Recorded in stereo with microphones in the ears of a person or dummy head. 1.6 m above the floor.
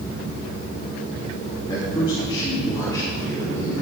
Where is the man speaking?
25° left (ahead or behind), 3 m; by 3.7 s 15° left (ahead or behind), 4 m.